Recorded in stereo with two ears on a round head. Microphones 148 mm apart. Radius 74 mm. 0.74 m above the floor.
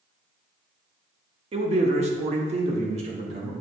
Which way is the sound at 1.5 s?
35° right (ahead or behind).